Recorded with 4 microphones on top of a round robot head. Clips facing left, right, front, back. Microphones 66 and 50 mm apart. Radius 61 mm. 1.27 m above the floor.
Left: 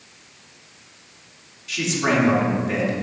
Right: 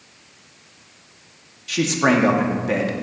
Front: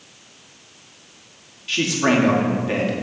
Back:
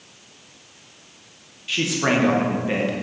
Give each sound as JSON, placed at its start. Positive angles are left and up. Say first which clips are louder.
{"t": 1.7, "sound": "a man speaking", "louder": "right 4 dB, front 2 dB", "azimuth_deg": -95, "distance_m": 1.2}